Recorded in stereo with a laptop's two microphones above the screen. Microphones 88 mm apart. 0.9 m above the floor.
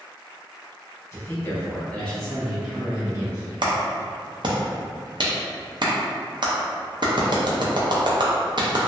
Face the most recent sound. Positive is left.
turn(degrees=-55)  # may be behind; listen again after turning